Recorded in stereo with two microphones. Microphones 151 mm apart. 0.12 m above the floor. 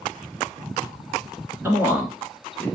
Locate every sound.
1.6 s a man speaking: 15° right (ahead or behind), 1.1 m; by 2.7 s 10° left (ahead or behind), 1.1 m